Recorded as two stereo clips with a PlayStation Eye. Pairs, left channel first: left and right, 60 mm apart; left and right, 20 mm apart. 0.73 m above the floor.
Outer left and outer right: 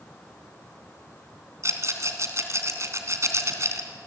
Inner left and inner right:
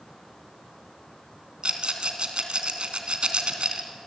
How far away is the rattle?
About 2.5 m.